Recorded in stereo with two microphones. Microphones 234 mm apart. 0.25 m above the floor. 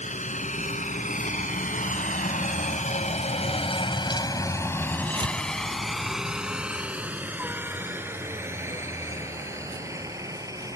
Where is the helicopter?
30° left (ahead or behind); by 10.8 s 15° right (ahead or behind).